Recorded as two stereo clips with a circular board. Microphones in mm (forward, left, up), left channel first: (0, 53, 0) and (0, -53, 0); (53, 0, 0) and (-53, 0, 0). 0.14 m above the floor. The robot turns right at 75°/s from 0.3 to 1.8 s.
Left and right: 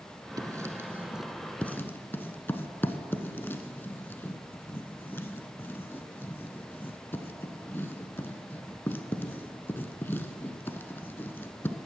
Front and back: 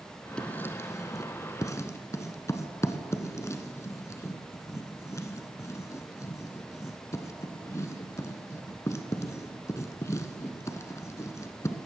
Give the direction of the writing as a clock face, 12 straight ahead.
2 o'clock.